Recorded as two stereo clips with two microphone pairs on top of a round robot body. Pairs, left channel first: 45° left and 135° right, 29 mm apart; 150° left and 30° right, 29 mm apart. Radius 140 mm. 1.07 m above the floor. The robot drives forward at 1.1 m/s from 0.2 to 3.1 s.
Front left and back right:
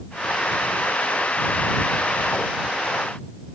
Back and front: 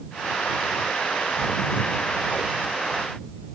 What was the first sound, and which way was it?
Only background noise.